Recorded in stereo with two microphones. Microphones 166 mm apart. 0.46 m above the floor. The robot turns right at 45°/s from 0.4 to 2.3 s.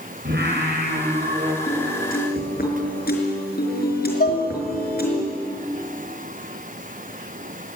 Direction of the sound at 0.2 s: 85° right.